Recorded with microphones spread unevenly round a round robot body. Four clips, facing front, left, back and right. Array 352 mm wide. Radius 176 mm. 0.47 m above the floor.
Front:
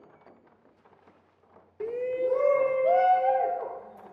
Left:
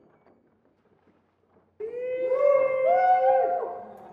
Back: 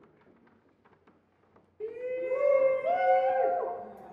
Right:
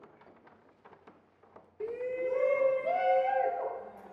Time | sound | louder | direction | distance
1.8 | a shout | left 5 dB, front 5 dB | 10° left | 0.9 m